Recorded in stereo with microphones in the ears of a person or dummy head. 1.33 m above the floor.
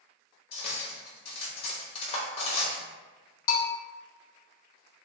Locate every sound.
0.5 s cutlery clinking: 35° left (ahead or behind), 1.0 m
3.5 s a bell: 50° left (ahead or behind), 0.6 m